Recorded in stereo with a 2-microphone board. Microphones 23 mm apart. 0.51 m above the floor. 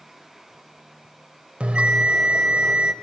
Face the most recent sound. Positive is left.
turn(degrees=-65)  # may be behind; listen again after turning